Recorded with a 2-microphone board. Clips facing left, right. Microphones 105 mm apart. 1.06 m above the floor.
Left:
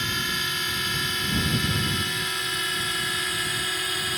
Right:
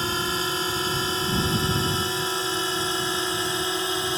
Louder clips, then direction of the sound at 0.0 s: Right 4 dB; 35° right (ahead or behind).